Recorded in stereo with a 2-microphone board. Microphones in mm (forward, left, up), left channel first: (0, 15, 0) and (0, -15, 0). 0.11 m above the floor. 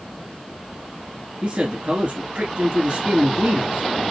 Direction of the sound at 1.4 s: 40° right (ahead or behind).